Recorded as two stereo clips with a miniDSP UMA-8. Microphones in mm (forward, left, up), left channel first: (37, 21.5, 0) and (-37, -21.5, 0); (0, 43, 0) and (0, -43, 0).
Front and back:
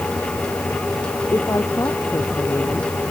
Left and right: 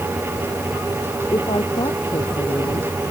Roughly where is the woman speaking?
Left.